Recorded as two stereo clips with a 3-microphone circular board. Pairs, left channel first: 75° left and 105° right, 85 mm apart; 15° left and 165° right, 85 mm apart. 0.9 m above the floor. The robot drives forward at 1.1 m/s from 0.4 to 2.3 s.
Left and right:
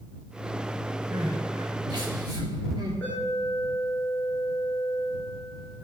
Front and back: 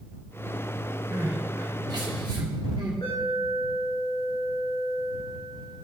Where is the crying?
105° right, 1.6 m; by 2.9 s 140° right, 2.5 m.